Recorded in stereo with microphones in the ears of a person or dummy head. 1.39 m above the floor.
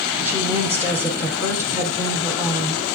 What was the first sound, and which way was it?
A woman speaking, 10° right (ahead or behind).